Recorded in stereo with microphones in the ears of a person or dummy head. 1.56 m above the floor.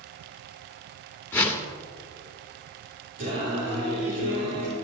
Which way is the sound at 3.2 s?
45° right (ahead or behind).